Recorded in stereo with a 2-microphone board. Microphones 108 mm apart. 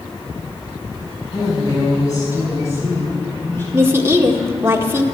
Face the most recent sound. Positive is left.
turn(degrees=-20)  # may be behind; listen again after turning